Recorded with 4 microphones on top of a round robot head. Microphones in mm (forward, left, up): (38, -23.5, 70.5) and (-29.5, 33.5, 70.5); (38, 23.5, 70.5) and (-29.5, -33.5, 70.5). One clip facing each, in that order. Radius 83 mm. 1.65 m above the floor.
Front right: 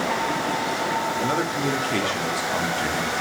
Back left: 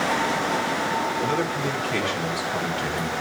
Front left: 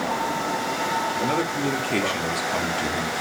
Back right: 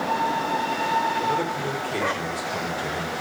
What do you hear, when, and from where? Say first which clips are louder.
1.2 s a man speaking: front right 1 dB, front left 1 dB; 15° left, 3.5 m